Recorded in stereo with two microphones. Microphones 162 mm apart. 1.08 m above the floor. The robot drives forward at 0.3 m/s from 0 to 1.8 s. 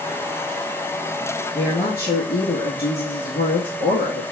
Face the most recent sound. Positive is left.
turn(degrees=65)  # may be behind; listen again after turning